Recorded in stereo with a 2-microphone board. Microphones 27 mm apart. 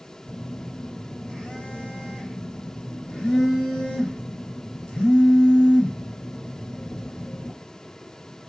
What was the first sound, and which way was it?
A phone buzzing, 45° left (ahead or behind).